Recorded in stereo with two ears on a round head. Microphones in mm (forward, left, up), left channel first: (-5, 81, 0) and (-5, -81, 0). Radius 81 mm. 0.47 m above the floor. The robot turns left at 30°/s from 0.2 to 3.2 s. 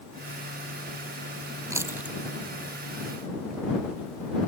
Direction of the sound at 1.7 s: 20° right (ahead or behind).